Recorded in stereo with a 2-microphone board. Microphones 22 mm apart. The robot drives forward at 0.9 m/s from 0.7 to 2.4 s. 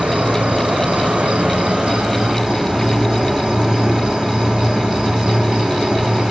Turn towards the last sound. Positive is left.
turn(degrees=-40)  # may be behind; listen again after turning